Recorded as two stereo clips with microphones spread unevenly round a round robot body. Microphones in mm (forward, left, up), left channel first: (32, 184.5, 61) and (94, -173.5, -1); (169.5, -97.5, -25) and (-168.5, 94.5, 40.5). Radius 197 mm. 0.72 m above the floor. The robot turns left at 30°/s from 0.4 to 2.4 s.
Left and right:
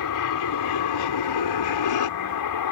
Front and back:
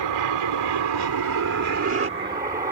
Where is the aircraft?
135° left; by 2.7 s 75° left.